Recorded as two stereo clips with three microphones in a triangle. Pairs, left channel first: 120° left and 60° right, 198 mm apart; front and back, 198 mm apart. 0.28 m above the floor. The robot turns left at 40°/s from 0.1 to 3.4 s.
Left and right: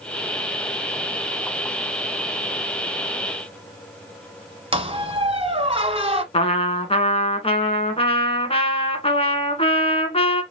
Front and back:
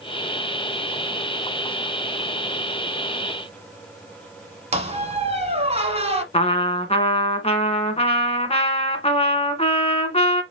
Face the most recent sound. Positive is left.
turn(degrees=60)